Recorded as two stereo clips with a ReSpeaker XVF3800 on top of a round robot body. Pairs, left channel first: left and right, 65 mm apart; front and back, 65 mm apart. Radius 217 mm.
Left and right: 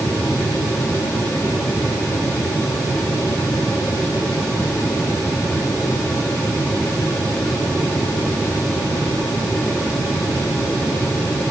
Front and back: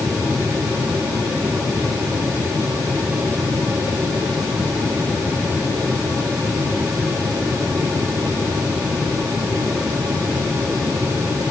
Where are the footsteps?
I don't hear footsteps.